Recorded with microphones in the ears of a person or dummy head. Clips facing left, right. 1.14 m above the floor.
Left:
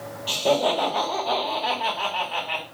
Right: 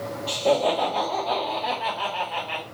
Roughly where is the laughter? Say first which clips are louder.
Even; centre.